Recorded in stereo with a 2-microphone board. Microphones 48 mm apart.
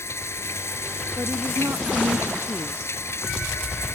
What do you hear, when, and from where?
0.0 s running water: 65° left (ahead or behind)
1.2 s a woman speaking: 60° right (ahead or behind)